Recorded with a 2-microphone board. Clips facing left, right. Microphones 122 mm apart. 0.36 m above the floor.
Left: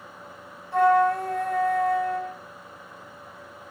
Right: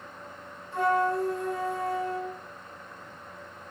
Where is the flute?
65° left (ahead or behind), 1.0 m.